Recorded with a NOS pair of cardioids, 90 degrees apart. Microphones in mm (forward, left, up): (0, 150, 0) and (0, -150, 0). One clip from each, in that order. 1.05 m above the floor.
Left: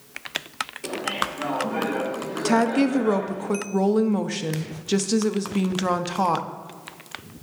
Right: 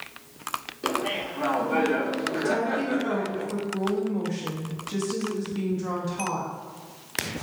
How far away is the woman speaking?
About 0.9 m.